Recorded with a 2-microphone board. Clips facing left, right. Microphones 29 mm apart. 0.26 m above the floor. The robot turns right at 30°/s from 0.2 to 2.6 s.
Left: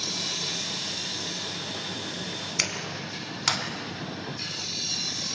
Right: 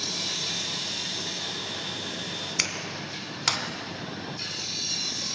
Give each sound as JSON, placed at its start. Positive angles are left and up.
{"t": 2.6, "sound": "a clap", "side_deg": -5, "distance_m": 2.0}